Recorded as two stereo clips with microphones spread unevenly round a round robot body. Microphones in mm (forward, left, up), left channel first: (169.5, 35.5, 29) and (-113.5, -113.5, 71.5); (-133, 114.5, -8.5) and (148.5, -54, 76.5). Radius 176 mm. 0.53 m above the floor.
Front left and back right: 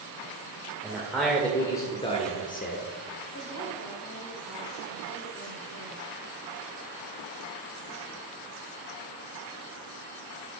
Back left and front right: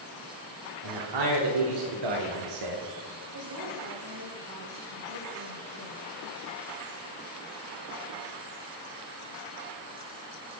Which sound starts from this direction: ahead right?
A man speaking, at 0.8 s.